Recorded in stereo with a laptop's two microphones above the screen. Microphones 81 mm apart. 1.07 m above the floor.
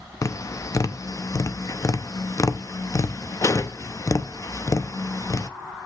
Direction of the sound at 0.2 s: 40° left (ahead or behind).